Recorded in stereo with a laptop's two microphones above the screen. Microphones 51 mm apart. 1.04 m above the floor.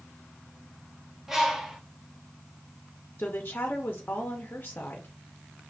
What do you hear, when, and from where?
1.3 s a bird: 5° right (ahead or behind), 0.9 m
3.2 s a woman speaking: 40° left (ahead or behind), 0.5 m